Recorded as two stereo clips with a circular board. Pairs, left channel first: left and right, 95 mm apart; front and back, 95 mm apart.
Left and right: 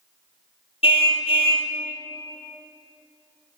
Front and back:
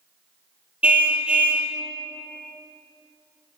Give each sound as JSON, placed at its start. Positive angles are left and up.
{"t": 0.8, "sound": "a car horn", "azimuth_deg": 105, "distance_m": 2.5}